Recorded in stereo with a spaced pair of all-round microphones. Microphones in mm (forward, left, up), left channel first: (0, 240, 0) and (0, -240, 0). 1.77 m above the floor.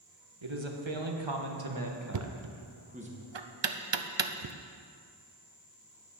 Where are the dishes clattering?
I don't hear dishes clattering.